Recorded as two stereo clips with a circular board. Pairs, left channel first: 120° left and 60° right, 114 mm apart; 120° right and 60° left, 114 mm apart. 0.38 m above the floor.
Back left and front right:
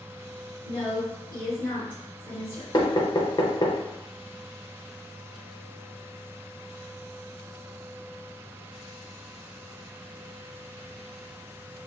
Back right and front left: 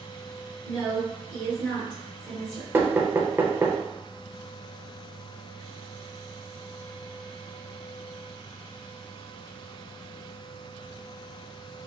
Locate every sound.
0.7 s a woman speaking: 175° right, 1.7 m
2.7 s knocking: 120° left, 0.6 m